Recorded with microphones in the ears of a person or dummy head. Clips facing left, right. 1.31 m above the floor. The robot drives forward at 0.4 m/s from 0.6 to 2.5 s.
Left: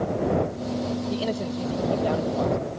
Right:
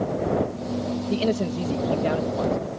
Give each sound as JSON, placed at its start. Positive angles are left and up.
{"t": 1.1, "sound": "a man speaking", "side_deg": -35}